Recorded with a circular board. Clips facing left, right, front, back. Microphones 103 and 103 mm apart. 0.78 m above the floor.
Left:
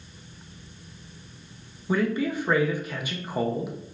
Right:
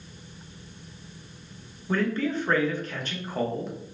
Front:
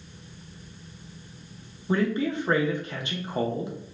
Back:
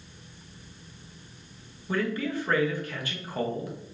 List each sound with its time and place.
1.9 s a man speaking: 25° left, 0.5 m